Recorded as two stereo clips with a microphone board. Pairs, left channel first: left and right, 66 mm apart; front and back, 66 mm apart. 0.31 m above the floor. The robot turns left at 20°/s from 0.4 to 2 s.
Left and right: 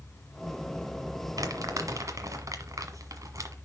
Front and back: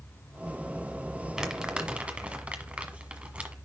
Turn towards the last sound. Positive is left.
turn(degrees=-110)